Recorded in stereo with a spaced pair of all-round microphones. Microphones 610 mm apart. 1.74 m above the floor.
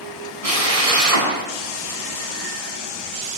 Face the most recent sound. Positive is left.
turn(degrees=-70)  # may be behind; listen again after turning